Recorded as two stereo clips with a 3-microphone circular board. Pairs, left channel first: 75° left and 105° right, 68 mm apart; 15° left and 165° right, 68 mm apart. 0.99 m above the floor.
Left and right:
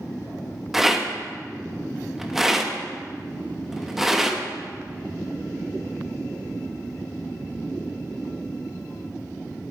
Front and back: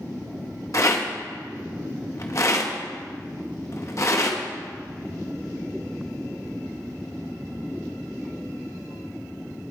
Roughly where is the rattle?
Ahead.